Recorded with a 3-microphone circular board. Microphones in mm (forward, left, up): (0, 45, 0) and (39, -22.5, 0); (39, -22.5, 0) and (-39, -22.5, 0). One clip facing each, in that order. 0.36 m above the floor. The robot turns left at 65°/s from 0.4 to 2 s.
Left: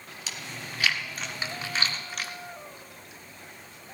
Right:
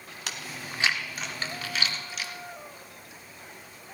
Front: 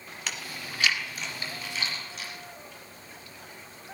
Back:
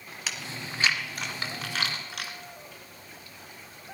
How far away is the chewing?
About 1.7 m.